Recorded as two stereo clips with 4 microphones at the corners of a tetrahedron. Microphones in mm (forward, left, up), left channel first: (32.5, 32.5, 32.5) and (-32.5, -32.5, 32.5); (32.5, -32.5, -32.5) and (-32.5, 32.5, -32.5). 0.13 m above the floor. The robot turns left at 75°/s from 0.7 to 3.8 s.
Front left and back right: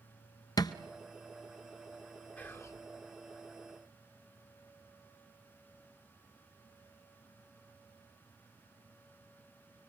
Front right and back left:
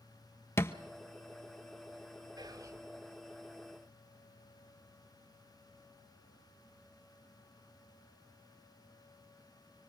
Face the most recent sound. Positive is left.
turn(degrees=5)